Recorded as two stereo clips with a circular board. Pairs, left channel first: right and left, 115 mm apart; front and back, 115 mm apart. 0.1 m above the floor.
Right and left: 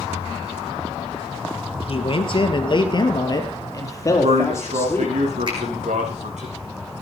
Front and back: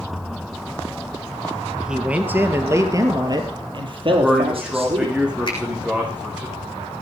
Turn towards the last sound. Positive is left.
turn(degrees=45)